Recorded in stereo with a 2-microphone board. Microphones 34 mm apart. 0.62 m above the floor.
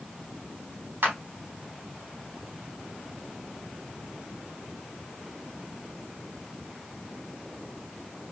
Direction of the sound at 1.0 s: 70° right (ahead or behind).